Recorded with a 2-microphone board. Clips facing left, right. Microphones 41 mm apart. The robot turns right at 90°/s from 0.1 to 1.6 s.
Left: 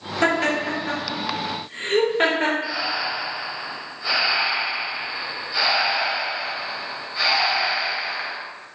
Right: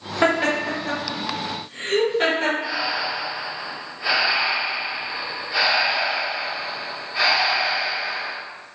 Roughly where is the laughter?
Right.